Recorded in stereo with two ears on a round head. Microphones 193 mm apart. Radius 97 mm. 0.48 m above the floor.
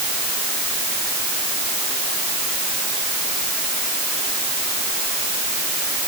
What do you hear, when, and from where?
Only background noise.